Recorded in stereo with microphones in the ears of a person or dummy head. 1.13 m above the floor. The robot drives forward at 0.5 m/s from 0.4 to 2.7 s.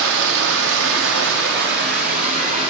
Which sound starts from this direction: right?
Running water, at 0.0 s.